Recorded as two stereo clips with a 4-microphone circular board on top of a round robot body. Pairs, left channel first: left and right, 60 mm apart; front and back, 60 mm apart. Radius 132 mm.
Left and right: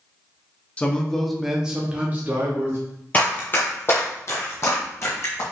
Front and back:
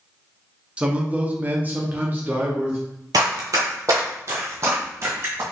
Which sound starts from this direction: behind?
Running footsteps, at 3.1 s.